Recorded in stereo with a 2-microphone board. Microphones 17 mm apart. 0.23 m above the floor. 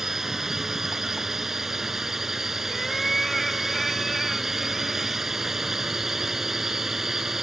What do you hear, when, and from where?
0.0 s a drone: 20° right (ahead or behind)
2.7 s a cat meowing: 15° left (ahead or behind)